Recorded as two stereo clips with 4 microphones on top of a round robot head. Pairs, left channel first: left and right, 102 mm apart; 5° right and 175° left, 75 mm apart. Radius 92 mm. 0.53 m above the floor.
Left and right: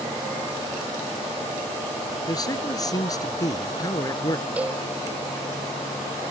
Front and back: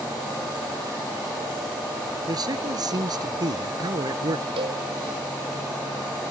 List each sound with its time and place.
2.3 s a man speaking: 145° left
4.6 s a cowbell: 165° right